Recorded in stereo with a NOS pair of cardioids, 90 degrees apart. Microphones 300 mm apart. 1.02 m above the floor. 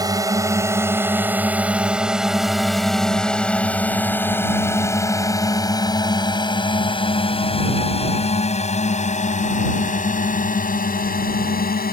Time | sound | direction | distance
0.0 | a drone | 10° right | ?